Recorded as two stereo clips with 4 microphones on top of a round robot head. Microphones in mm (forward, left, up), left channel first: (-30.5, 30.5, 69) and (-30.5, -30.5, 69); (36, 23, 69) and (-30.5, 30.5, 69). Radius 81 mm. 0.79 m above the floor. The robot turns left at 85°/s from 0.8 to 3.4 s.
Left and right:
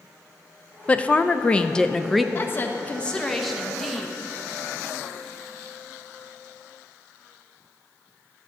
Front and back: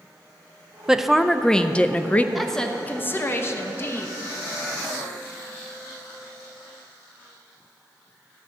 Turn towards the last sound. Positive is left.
turn(degrees=0)